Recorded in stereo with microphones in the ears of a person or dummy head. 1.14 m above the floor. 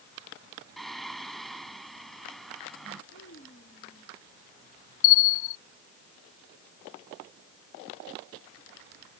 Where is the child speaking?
65° left (ahead or behind).